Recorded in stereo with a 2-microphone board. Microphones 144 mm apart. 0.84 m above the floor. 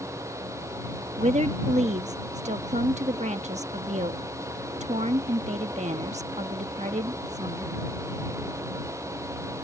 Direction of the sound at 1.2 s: 50° right (ahead or behind).